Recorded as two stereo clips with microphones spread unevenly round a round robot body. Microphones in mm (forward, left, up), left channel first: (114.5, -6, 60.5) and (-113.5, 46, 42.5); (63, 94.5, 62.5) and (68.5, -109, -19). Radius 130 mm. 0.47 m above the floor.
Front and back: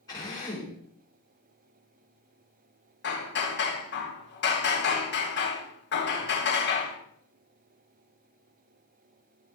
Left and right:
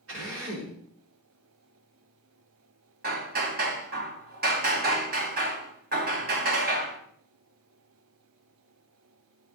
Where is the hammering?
60° right, 2.5 m.